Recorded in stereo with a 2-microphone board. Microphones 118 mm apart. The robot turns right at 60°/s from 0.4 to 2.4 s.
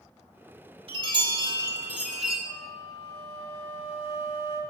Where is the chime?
80° right, 1.4 m; by 2.4 s 10° left, 1.4 m.